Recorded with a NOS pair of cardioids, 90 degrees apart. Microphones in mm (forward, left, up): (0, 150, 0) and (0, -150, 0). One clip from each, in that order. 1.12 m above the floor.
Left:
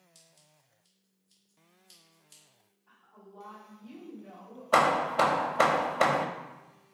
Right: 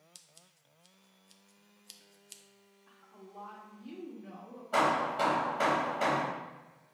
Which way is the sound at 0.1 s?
50° right.